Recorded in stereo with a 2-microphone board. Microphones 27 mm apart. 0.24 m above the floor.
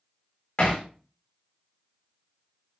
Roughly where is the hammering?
Left.